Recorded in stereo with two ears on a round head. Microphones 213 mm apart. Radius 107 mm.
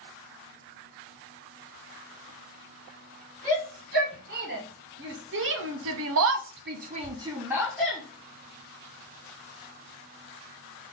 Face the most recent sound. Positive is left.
turn(degrees=0)  # may be behind; listen again after turning